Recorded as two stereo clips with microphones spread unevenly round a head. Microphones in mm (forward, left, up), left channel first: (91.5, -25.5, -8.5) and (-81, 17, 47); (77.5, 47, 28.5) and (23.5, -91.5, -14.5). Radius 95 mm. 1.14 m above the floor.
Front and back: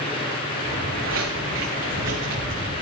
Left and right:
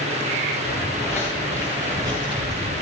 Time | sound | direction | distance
0.7 | footsteps | 155° left | 4.5 m